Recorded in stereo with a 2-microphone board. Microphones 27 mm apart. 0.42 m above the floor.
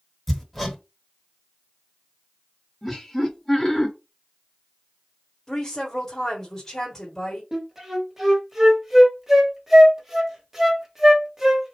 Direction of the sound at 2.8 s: 10° left (ahead or behind).